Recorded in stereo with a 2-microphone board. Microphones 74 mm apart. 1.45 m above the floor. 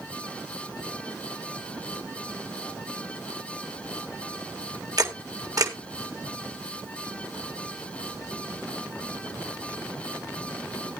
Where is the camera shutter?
50° right (ahead or behind), 2.0 m.